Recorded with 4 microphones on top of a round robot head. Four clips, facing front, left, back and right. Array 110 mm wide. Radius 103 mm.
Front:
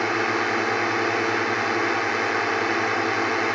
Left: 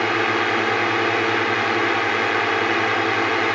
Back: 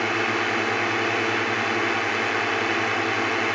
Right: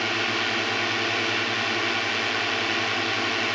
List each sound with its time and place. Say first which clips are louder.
0.0 s a drone: left 7 dB, front 1 dB; 75° left